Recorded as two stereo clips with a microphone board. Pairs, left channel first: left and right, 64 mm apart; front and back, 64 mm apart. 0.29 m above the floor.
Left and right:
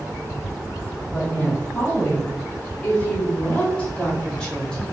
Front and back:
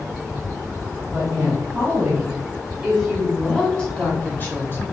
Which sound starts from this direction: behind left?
A woman speaking, at 1.1 s.